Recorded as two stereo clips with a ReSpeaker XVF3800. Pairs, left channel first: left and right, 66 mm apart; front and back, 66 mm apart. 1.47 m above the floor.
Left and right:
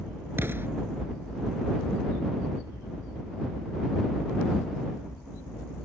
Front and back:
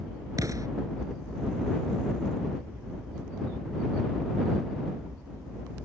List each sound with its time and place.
0.4 s an explosion: 145° right